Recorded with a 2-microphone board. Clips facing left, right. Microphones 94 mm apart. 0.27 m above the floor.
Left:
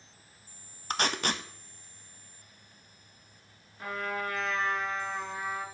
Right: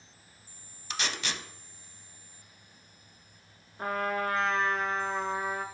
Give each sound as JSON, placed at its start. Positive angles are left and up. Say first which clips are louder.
{"t": 0.9, "sound": "tape being pulled", "louder": "left 5 dB", "side_deg": 50, "distance_m": 0.6}
{"t": 3.8, "sound": "a trumpet", "louder": "right 4 dB", "side_deg": -50, "distance_m": 1.2}